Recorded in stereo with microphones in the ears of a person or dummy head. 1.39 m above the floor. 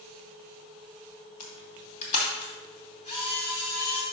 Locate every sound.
1.4 s a camera shutter: 40° left (ahead or behind), 2.5 m